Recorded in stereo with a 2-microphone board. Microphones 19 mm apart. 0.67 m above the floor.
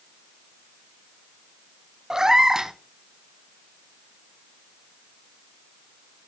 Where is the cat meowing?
35° right (ahead or behind), 0.6 m.